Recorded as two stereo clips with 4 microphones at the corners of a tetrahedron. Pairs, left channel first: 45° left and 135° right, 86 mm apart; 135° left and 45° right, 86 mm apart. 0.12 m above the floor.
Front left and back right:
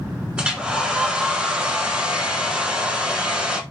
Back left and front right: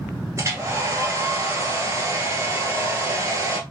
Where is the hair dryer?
60° right, 1.3 m.